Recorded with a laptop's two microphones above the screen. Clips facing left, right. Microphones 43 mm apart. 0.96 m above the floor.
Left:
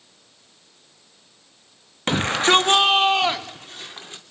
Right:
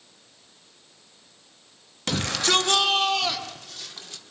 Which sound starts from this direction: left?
A shout, at 2.1 s.